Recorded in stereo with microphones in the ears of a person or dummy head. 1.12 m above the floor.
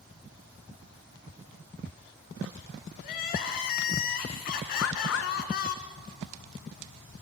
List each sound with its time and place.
3.0 s crying: 50° left (ahead or behind), 2 m
4.8 s a bird: 75° left (ahead or behind), 1.2 m